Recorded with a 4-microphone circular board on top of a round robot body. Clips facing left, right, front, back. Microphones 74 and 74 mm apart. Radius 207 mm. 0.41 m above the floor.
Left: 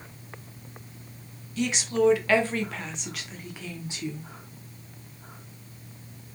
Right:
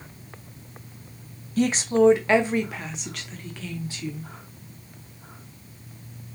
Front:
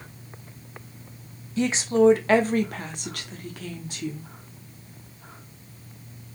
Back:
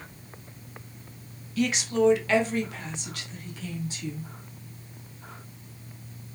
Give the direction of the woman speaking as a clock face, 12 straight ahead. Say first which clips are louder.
Right 5 dB, front 4 dB; 2 o'clock.